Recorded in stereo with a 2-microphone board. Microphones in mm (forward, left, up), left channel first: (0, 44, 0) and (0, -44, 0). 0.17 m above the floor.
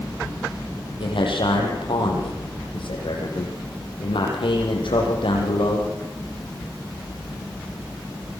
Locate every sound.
1.0 s a man speaking: 80° left, 8 m